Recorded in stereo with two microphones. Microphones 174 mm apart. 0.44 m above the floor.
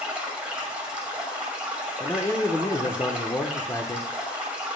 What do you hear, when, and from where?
0.0 s running water: 5° right (ahead or behind), 1.7 m
2.0 s a man speaking: 15° left (ahead or behind), 0.7 m